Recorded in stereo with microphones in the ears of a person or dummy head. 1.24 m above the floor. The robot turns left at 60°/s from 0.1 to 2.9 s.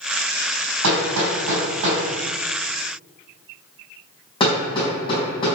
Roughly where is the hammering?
Right.